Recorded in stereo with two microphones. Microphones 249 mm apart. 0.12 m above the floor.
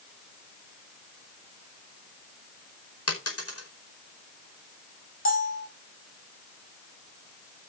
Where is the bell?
55° left (ahead or behind), 5.5 m.